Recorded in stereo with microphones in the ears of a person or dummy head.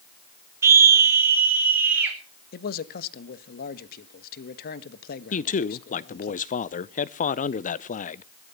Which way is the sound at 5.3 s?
35° left (ahead or behind).